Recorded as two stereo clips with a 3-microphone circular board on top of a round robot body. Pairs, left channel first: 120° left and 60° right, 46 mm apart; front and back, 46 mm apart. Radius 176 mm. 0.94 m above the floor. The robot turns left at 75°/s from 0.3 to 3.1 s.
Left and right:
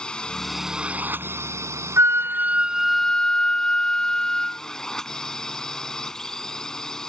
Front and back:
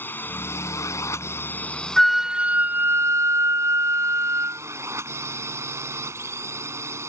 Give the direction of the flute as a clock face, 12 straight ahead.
3 o'clock.